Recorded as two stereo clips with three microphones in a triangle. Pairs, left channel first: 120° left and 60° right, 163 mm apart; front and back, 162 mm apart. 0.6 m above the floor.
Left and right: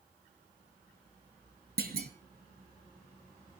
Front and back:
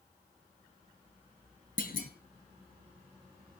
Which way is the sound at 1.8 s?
35° right.